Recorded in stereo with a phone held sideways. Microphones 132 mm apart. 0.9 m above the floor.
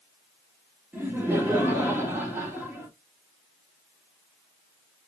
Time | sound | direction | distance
0.9 | laughter | 15° right (ahead or behind) | 1.6 m